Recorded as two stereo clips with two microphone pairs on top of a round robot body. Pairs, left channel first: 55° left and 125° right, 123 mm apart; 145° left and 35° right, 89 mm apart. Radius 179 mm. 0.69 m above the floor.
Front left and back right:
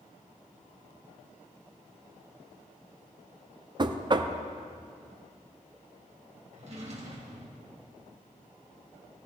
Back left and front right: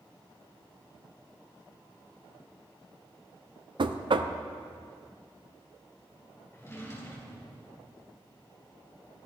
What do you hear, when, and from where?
3.8 s knocking: 70° right, 0.7 m
6.5 s a drawer: 160° right, 3 m